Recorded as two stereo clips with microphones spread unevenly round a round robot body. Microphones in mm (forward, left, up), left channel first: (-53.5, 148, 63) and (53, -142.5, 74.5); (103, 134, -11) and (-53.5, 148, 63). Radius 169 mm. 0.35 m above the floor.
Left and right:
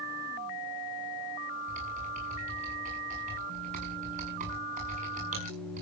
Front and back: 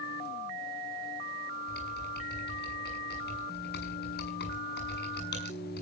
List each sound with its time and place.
1.7 s typing on a keyboard: 5° right, 7.5 m